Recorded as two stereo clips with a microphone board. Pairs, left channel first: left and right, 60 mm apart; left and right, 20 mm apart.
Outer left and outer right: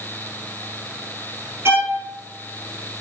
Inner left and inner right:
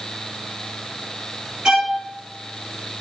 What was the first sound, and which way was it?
A violin, 40° right (ahead or behind).